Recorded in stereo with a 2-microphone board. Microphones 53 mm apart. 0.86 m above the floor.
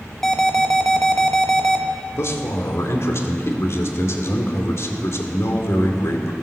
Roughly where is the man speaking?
Left.